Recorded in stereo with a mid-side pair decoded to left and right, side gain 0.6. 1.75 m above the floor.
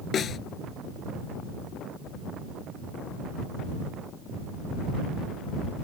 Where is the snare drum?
40° left.